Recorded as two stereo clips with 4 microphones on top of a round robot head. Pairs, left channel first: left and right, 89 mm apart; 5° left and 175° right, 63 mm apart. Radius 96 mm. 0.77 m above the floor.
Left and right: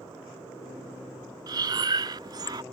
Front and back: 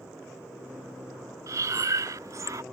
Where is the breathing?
135° right.